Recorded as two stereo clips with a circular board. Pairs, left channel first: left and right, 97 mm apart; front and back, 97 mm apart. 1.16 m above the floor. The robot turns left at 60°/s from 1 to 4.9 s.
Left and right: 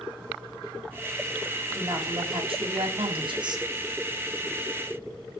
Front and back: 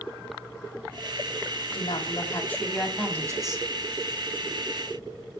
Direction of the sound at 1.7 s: 25° right.